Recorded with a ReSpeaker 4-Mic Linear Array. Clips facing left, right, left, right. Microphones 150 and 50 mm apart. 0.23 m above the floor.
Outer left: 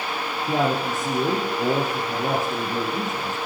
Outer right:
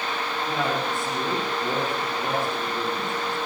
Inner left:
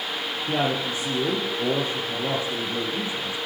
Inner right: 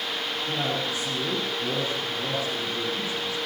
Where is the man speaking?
40° left (ahead or behind), 6 m.